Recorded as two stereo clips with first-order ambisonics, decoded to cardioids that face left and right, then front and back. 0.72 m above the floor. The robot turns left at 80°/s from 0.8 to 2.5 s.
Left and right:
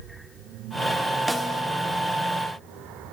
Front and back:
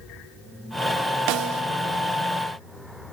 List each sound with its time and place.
1.3 s a snare drum: 175° right, 1.7 m; by 1.6 s 160° left, 1.7 m